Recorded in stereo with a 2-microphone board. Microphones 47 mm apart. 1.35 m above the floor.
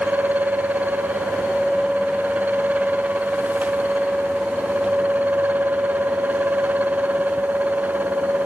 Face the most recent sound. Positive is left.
No sound to turn to.